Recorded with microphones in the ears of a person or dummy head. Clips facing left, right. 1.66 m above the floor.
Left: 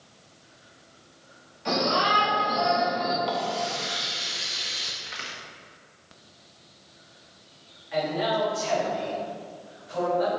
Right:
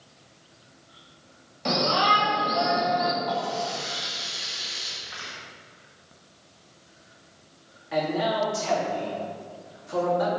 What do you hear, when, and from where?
1.6 s a shout: 60° right (ahead or behind), 2.5 m
3.2 s a running tap: 30° left (ahead or behind), 0.8 m
5.0 s a crack: 30° left (ahead or behind), 1.8 m
7.9 s a man speaking: 55° right (ahead or behind), 2.5 m